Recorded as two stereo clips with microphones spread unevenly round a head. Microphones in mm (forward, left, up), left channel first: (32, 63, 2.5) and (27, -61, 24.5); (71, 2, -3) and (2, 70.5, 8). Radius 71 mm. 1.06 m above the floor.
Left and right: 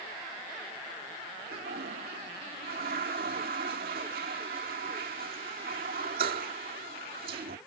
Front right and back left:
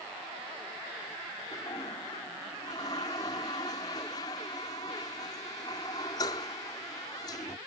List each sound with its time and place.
1.5 s a toilet flushing: 105° right